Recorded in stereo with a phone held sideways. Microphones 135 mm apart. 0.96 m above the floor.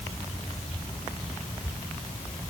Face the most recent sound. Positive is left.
No sound to turn to.